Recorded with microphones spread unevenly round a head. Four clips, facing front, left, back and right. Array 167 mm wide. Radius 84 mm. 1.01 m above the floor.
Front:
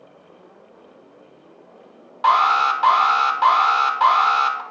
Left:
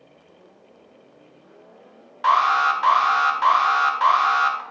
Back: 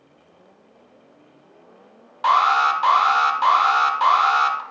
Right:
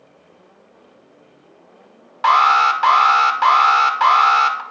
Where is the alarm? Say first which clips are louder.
Right 4 dB, front 1 dB; 50° right, 1.0 m.